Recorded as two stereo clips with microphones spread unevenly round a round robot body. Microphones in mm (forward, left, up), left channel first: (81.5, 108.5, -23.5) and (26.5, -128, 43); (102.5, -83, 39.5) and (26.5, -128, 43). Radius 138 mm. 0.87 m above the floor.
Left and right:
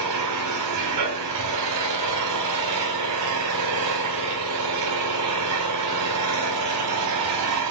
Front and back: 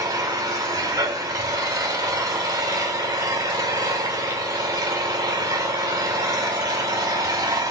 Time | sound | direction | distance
0.0 | an engine running | 110° right | 4 m